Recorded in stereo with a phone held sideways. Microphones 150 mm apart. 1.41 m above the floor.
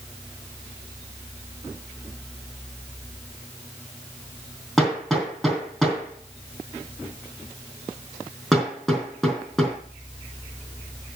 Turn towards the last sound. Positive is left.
turn(degrees=0)  # may be behind; listen again after turning